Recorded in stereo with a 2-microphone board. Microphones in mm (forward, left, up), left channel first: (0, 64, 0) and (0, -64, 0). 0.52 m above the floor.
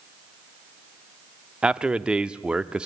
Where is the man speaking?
5° right (ahead or behind), 0.7 m.